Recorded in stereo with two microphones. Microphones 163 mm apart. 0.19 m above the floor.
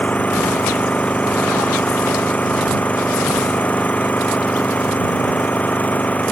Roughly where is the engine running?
Centre.